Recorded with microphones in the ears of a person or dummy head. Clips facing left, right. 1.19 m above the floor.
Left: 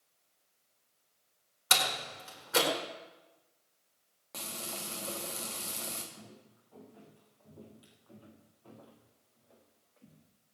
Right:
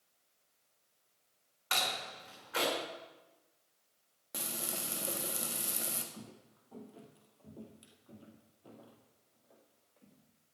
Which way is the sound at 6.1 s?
50° right (ahead or behind).